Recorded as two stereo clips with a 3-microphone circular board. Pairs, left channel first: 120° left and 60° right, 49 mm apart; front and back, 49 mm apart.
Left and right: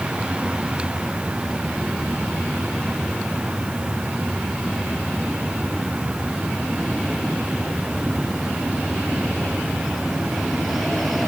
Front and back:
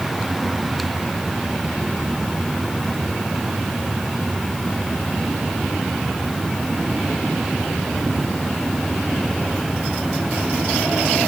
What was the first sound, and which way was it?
Only background noise.